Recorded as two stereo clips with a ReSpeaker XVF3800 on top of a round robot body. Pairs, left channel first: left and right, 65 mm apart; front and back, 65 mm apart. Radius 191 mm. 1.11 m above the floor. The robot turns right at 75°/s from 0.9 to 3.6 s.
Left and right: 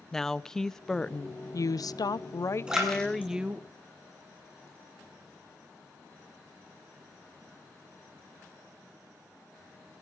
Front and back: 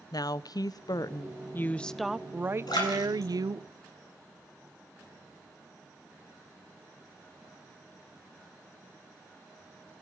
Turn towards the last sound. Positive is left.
turn(degrees=55)